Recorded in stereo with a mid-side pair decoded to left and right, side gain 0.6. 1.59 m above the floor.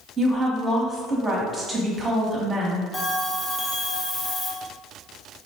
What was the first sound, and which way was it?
A woman speaking, 20° right.